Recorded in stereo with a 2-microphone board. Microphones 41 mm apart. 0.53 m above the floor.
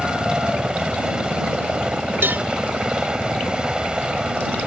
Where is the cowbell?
60° right (ahead or behind).